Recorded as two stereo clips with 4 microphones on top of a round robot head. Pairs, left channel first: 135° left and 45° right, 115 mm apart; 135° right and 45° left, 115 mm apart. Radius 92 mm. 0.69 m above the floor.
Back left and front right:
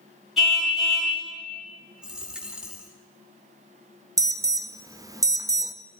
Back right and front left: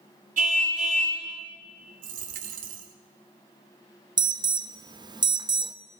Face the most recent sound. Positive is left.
turn(degrees=5)